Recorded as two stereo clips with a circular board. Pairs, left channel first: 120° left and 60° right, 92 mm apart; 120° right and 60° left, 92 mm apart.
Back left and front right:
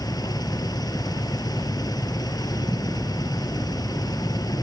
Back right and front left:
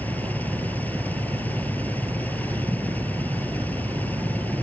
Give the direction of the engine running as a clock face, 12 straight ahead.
6 o'clock.